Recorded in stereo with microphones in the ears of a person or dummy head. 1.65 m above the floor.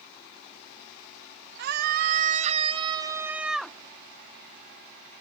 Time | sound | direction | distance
1.6 | a scream | 60° right (ahead or behind) | ?